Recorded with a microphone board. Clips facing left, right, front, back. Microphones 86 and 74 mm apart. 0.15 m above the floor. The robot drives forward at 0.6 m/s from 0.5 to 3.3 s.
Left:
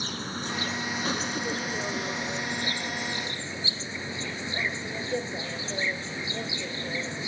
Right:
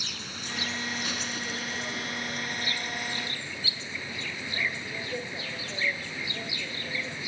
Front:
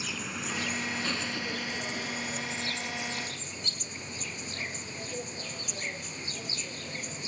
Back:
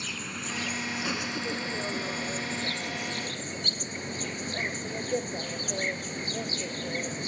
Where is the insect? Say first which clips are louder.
Left 7 dB, even; 85° left, 1.2 m; by 7.3 s 155° left, 2.0 m.